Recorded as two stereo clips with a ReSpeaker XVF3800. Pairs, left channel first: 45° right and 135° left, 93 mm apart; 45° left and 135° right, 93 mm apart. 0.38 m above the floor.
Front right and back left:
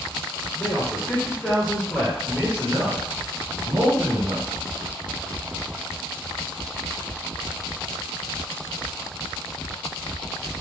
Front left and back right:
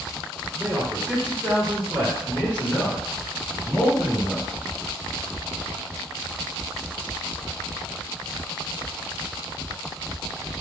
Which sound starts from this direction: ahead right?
A man speaking, at 0.6 s.